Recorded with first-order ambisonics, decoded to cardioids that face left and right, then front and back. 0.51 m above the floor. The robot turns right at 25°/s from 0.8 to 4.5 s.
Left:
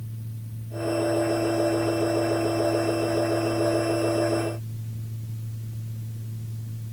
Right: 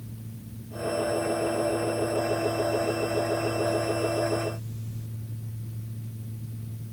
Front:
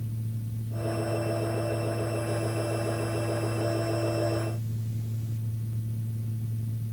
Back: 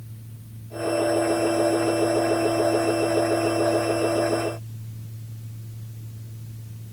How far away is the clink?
I don't hear a clink.